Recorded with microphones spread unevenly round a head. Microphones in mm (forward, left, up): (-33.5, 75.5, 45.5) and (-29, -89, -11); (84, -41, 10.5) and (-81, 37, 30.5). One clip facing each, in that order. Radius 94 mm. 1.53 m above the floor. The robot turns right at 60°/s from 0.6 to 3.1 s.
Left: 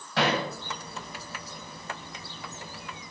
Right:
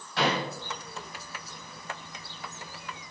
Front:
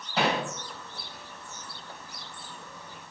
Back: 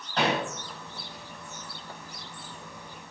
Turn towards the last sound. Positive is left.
turn(degrees=-150)